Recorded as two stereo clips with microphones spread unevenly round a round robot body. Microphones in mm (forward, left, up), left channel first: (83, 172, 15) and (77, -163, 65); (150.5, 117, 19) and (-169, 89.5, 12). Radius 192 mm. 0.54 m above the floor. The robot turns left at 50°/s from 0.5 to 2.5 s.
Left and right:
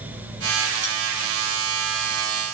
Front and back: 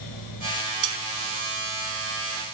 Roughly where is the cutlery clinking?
Behind.